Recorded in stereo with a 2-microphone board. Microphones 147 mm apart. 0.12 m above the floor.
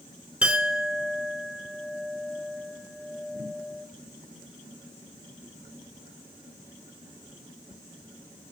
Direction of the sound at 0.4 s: 5° right (ahead or behind).